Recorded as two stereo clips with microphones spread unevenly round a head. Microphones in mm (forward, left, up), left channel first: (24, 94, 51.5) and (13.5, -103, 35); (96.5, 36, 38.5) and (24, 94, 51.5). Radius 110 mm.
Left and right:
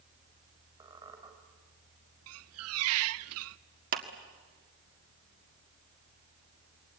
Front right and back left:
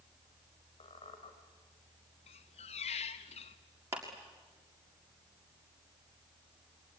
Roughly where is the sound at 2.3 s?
Right.